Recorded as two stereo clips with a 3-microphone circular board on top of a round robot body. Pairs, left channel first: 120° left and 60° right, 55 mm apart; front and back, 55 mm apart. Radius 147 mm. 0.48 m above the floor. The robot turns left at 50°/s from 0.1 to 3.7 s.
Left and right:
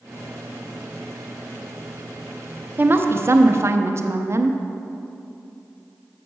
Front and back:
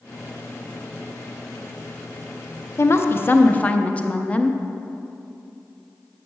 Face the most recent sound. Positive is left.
turn(degrees=-60)